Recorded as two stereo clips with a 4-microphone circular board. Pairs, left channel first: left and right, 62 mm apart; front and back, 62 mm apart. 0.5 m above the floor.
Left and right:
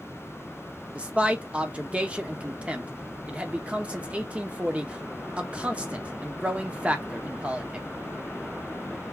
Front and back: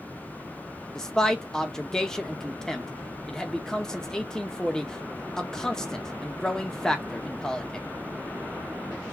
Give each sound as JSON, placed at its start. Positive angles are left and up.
{"t": 0.9, "sound": "a man speaking", "azimuth_deg": -65, "distance_m": 0.7}